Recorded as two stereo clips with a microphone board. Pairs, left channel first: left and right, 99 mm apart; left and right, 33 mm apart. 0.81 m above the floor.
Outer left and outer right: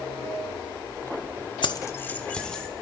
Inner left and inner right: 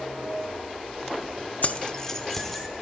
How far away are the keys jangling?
About 0.6 m.